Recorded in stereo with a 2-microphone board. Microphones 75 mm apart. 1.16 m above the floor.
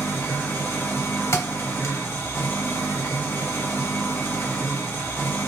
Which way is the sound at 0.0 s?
35° left (ahead or behind).